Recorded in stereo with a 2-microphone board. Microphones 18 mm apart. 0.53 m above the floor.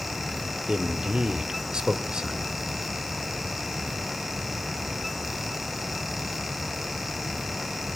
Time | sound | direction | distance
0.7 | a man speaking | 55° right (ahead or behind) | 1.3 m